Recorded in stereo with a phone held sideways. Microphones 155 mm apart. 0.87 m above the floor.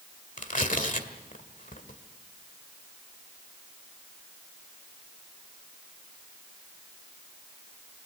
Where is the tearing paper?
55° left (ahead or behind), 1.7 m.